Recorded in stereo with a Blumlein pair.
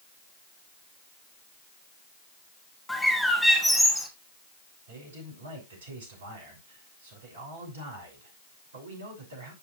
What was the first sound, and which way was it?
A bird, 5° left.